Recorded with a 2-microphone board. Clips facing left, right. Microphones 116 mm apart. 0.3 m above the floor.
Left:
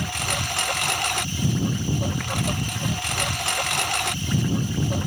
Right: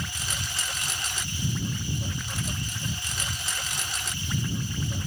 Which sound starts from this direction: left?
A lawn mower, at 0.0 s.